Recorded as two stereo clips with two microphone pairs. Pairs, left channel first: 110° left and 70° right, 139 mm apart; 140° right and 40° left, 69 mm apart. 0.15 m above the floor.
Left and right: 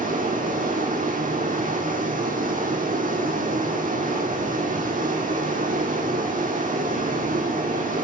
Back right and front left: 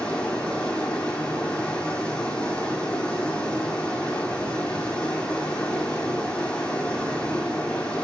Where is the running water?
65° right, 1.4 m.